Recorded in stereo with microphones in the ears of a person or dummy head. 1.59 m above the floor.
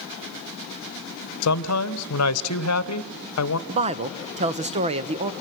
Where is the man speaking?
85° left, 1.2 m.